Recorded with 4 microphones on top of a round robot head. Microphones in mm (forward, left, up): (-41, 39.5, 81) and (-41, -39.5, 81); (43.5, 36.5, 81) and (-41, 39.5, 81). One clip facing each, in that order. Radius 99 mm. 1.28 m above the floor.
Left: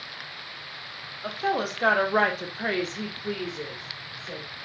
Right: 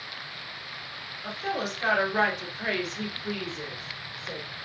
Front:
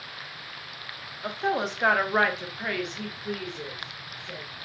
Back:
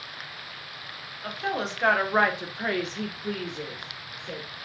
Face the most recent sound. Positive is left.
turn(degrees=-175)